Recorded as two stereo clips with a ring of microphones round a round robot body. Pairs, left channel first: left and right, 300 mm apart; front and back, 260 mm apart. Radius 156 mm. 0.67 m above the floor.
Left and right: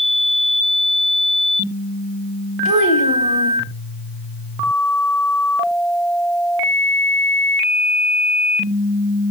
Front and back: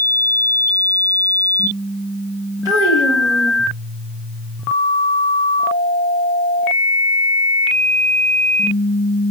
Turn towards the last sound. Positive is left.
turn(degrees=-100)